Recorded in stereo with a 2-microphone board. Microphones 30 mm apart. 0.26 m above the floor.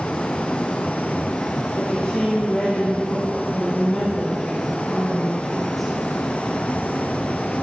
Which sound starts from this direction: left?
A woman speaking, at 1.8 s.